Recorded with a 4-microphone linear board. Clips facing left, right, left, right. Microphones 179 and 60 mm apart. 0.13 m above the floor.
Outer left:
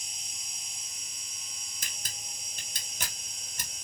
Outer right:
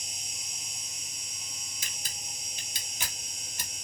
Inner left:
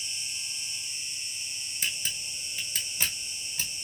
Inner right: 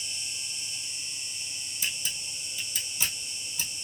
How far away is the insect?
About 0.9 m.